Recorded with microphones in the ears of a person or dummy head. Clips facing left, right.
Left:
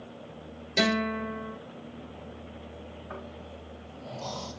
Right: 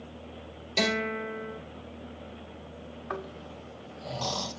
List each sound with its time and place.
0.8 s a guitar: 10° left (ahead or behind), 4 m
3.1 s snoring: 80° right, 2 m